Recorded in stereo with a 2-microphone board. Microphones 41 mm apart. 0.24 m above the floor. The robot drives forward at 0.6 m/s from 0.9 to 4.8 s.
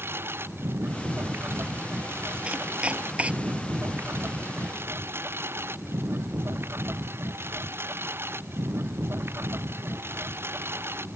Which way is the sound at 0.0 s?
80° right.